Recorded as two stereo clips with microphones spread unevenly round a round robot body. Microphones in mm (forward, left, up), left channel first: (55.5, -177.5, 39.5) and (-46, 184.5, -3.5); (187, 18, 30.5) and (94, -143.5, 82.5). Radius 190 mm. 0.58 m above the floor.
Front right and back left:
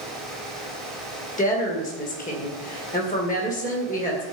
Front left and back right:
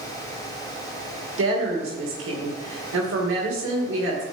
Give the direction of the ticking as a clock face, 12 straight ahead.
I don't hear ticking.